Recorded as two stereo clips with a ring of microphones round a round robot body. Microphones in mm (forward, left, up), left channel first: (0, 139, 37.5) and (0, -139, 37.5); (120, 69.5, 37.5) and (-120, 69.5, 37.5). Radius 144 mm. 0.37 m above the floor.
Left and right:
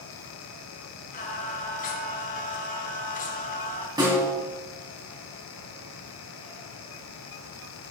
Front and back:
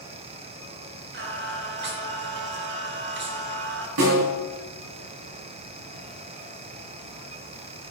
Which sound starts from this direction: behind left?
Singing, at 1.1 s.